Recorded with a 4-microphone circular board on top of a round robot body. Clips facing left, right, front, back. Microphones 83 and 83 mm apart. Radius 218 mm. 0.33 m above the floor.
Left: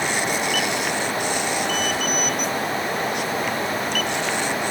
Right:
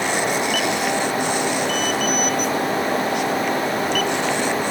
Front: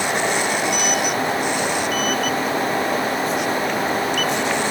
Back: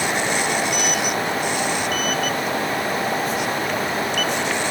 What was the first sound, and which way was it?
Only background noise.